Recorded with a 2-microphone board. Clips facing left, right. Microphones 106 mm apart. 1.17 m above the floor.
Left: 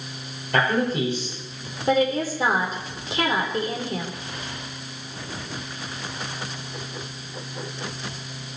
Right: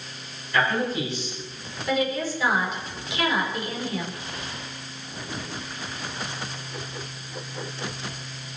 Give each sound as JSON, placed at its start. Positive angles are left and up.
{"t": 0.5, "sound": "a man speaking", "side_deg": 60, "distance_m": 5.5}
{"t": 1.9, "sound": "a woman speaking", "side_deg": 40, "distance_m": 4.0}